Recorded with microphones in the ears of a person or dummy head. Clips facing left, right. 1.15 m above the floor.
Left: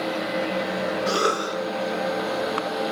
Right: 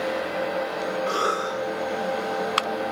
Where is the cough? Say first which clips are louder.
Left 2 dB; 25° left (ahead or behind), 3 m.